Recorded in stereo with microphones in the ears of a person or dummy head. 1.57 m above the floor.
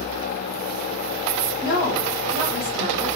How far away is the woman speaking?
About 1.4 m.